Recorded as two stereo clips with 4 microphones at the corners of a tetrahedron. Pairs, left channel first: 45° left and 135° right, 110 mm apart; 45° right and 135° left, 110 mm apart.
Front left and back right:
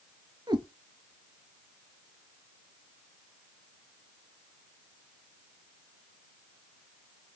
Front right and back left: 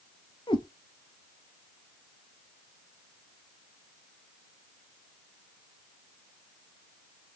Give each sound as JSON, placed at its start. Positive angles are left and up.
{"t": 0.5, "sound": "a cat meowing", "azimuth_deg": -90, "distance_m": 0.7}